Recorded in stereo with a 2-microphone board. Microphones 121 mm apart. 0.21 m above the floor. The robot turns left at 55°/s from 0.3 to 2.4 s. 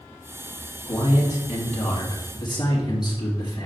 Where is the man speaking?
120° left, 3 m; by 3.7 s 35° left, 3 m.